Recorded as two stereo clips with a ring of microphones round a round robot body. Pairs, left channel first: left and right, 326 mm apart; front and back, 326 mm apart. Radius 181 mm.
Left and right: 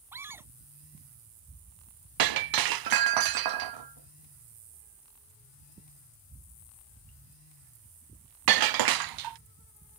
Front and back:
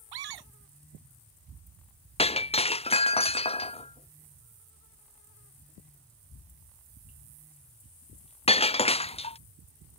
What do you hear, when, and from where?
0.1 s a scream: 175° right
2.2 s breaking glass: 70° right